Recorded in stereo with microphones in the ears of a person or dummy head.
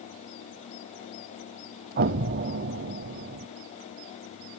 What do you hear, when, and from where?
2.0 s an explosion: 55° right (ahead or behind), 0.7 m